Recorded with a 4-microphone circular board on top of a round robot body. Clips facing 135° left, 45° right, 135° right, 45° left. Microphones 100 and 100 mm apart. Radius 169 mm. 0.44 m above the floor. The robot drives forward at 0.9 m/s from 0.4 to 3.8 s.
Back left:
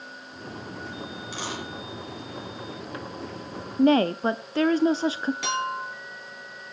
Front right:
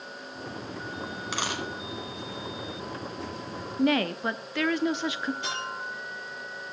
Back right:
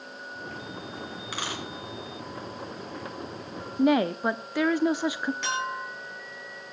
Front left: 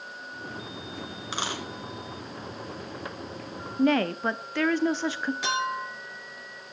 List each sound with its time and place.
1.3 s a dropped coin: 20° right, 3.5 m
3.8 s a woman speaking: 155° left, 0.8 m
5.4 s a clink: 130° left, 6.5 m